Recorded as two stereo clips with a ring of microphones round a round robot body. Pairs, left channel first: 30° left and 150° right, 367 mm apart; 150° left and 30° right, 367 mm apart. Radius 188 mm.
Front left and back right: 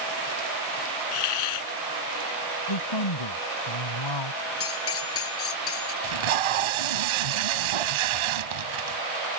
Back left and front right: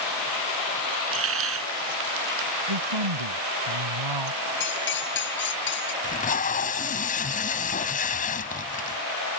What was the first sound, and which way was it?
A hiss, 30° left.